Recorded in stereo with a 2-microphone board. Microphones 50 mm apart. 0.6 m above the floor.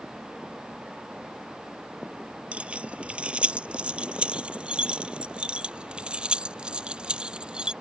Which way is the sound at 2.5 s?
25° right (ahead or behind).